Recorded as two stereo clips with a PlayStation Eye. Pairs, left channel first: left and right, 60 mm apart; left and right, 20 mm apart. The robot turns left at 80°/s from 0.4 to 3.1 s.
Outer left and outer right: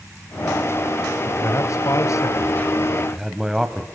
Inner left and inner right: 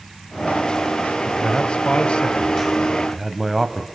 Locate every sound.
1.3 s a man speaking: 35° left (ahead or behind), 2.0 m; by 3.9 s 5° right (ahead or behind), 2.0 m